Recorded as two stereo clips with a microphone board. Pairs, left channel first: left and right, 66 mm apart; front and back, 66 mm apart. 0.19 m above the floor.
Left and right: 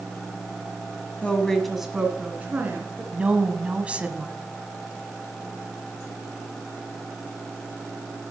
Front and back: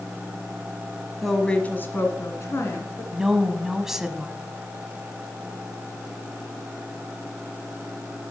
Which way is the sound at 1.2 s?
90° left.